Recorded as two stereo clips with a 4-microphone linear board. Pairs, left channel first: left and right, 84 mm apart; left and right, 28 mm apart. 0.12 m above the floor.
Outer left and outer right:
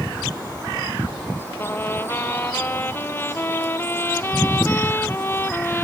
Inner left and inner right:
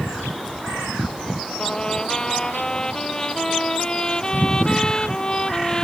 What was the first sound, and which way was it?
A trumpet, 25° left (ahead or behind).